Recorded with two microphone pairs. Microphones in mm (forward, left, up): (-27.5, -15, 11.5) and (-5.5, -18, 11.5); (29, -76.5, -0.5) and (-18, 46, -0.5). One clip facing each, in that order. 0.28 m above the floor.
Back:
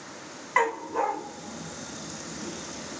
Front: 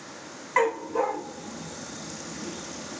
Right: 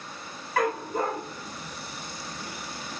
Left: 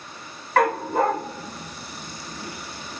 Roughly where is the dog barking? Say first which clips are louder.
Front 1 dB, left 6 dB; left.